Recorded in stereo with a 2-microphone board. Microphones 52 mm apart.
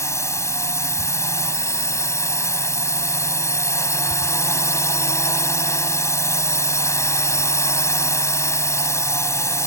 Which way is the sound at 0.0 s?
65° left (ahead or behind).